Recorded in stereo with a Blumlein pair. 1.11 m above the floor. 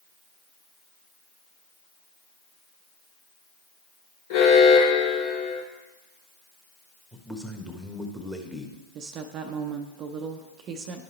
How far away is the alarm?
About 1.9 m.